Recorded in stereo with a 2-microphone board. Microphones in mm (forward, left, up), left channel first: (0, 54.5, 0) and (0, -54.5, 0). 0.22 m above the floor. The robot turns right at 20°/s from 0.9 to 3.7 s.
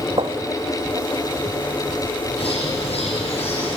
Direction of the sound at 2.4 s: 70° left (ahead or behind).